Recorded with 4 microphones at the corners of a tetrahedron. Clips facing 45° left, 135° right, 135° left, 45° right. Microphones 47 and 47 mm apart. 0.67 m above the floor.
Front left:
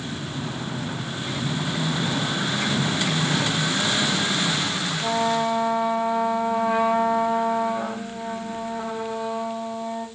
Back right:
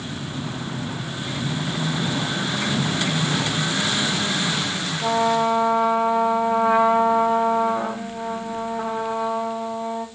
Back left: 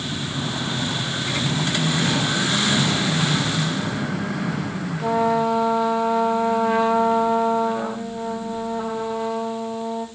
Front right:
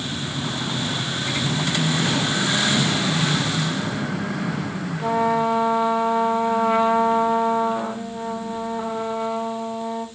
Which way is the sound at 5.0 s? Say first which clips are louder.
Back right 4 dB, even; 105° right.